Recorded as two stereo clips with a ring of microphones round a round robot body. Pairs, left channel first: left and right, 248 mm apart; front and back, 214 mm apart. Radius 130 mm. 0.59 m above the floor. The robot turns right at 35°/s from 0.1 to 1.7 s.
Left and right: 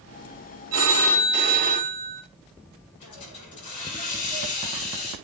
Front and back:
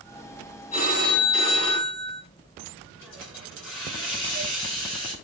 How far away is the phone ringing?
About 1.9 m.